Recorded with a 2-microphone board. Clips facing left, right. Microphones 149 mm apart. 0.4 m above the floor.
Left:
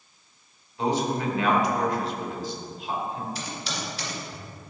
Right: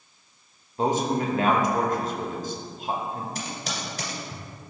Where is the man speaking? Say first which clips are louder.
Right 2 dB; 45° right (ahead or behind), 1.1 m.